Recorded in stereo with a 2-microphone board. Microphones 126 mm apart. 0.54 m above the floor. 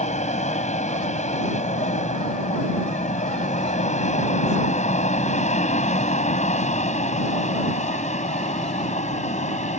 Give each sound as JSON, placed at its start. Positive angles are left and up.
{"t": 0.0, "sound": "an aircraft", "side_deg": 65}